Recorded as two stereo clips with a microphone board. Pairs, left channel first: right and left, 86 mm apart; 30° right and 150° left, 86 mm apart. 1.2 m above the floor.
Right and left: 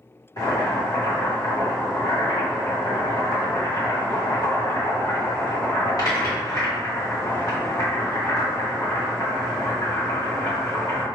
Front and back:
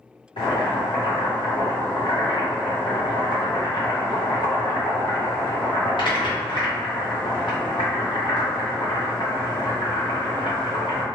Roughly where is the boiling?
Ahead right.